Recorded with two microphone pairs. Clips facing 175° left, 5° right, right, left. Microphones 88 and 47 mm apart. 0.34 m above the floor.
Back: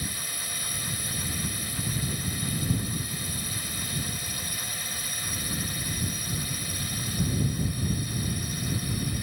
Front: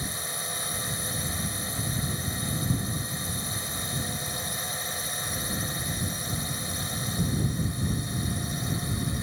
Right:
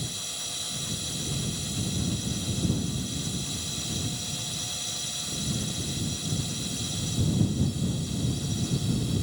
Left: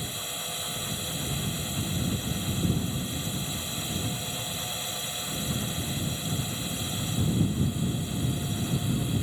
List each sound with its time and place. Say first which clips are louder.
0.0 s a drone: front 2 dB, left 2 dB; 40° left